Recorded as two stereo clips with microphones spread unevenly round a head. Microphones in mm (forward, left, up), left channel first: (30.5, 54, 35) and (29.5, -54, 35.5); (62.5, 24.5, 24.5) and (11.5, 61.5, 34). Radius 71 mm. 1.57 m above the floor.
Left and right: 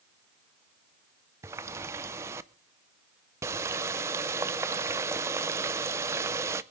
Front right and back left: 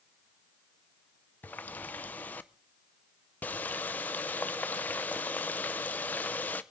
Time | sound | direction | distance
1.4 | a running tap | 95° right | 0.5 m